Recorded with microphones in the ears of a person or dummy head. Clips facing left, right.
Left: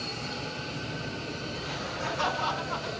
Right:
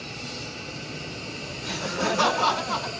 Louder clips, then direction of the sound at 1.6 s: Right 11 dB; 80° right.